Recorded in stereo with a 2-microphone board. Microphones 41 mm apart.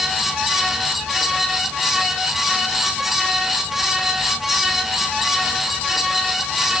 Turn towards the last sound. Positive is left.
No sound to turn to.